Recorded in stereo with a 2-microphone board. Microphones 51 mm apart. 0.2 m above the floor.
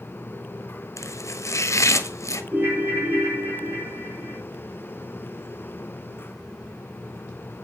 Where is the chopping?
80° left, 0.8 m.